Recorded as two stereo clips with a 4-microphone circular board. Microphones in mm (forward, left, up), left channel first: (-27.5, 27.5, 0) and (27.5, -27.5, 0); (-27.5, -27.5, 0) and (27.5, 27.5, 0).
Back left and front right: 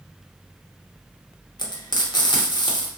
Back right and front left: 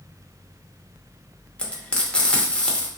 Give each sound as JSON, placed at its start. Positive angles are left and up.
{"t": 1.6, "sound": "frying", "azimuth_deg": 150, "distance_m": 0.8}